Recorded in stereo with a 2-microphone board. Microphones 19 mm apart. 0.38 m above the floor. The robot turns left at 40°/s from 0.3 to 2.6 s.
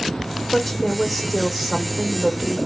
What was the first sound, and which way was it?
A woman speaking, 10° left (ahead or behind).